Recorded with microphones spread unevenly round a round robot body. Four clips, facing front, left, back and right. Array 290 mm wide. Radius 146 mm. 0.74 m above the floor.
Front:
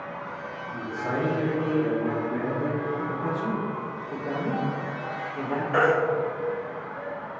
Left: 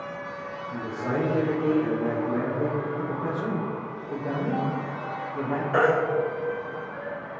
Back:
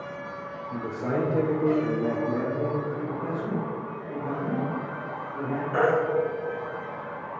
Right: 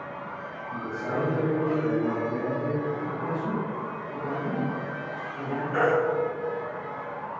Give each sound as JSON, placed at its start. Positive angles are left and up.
{"t": 0.7, "sound": "a man speaking", "azimuth_deg": 160, "distance_m": 3.0}
{"t": 3.0, "sound": "a man speaking", "azimuth_deg": 75, "distance_m": 3.0}
{"t": 5.7, "sound": "a baby crying", "azimuth_deg": 55, "distance_m": 3.0}